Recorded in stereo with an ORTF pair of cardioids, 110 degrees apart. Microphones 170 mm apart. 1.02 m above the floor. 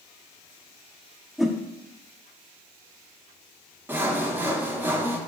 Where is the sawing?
10° right, 0.5 m.